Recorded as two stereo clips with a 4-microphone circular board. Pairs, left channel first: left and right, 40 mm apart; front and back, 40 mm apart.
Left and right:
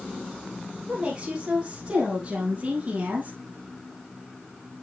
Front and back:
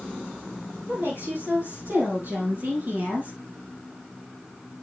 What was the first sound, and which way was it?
A woman speaking, 155° right.